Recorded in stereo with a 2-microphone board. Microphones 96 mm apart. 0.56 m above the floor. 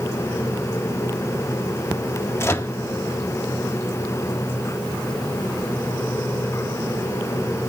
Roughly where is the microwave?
Left.